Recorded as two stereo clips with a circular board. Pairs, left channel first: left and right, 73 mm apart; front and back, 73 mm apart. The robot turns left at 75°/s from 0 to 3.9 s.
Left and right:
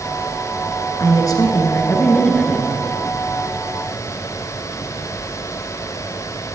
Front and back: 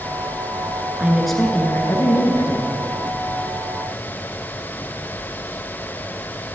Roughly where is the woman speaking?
Left.